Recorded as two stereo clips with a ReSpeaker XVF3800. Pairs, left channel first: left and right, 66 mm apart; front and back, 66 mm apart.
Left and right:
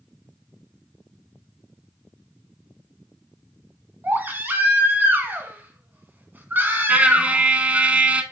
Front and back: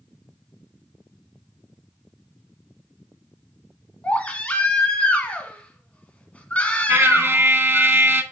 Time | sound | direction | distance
4.0 | a baby crying | 55° right | 1.1 m
6.9 | a trumpet | 150° right | 0.7 m